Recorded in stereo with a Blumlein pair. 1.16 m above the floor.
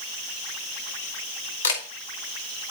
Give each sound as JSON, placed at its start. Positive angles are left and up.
{"t": 1.6, "sound": "a camera shutter", "azimuth_deg": 70, "distance_m": 1.5}